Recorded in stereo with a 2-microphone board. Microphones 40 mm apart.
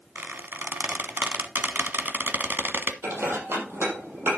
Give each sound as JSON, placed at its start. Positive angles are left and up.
{"t": 0.1, "sound": "a squeak", "side_deg": -60, "distance_m": 1.2}
{"t": 3.0, "sound": "dishes clattering", "side_deg": -85, "distance_m": 6.0}